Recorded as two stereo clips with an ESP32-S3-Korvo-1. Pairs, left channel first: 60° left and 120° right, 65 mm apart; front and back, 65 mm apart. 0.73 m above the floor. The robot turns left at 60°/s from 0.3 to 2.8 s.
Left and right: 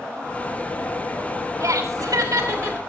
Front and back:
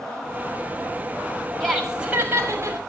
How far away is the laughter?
About 5.5 m.